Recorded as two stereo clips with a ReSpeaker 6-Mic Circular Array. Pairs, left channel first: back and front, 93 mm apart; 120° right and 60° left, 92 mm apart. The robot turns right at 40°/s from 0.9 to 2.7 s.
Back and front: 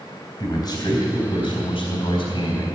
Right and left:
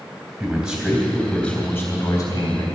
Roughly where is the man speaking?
Behind left.